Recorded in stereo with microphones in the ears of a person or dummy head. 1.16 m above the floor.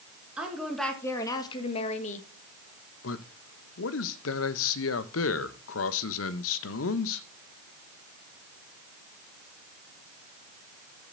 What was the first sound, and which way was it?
A woman speaking, 5° right (ahead or behind).